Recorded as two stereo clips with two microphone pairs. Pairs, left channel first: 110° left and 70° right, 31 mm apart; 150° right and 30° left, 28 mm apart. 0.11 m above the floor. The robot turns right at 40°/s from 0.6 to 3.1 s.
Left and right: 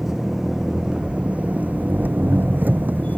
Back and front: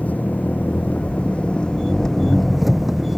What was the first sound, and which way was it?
An engine running, 140° right.